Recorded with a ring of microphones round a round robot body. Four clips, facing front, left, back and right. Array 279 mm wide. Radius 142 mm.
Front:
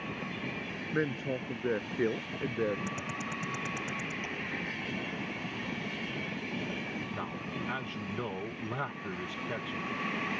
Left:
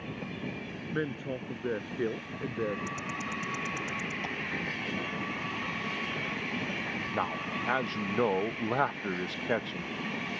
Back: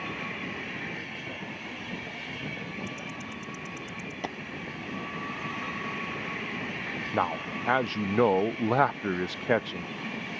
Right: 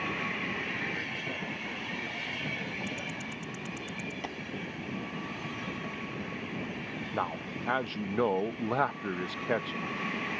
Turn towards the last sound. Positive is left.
turn(degrees=180)